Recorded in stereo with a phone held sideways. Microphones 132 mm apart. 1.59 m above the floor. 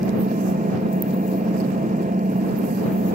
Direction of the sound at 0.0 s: 85° right.